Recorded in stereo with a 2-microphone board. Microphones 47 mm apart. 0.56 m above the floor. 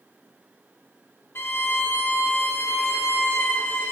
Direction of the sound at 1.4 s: 55° left (ahead or behind).